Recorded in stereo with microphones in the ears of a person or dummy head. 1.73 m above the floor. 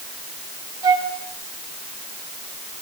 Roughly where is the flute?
Right.